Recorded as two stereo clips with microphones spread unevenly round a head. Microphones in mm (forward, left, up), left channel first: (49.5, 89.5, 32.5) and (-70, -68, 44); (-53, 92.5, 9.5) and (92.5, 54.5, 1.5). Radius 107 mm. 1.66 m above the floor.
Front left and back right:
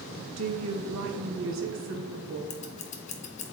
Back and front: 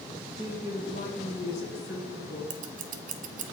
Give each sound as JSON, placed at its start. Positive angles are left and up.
{"t": 0.4, "sound": "a woman speaking", "azimuth_deg": -120, "distance_m": 1.4}
{"t": 2.5, "sound": "scissors", "azimuth_deg": 0, "distance_m": 0.7}